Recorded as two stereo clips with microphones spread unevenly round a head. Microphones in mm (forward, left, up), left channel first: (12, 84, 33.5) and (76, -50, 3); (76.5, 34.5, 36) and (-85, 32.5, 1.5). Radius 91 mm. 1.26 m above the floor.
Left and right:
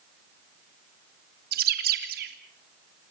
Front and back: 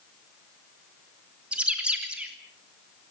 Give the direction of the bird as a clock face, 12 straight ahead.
3 o'clock.